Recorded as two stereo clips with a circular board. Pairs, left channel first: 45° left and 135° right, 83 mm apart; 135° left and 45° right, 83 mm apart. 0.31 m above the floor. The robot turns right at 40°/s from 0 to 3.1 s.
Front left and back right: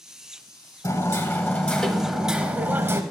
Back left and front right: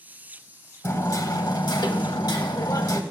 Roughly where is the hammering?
Left.